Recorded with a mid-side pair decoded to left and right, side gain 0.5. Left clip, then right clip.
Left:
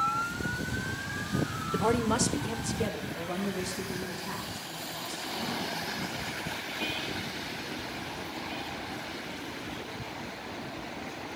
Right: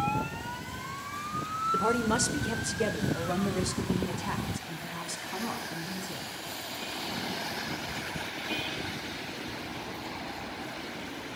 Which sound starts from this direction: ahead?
A woman speaking, at 1.7 s.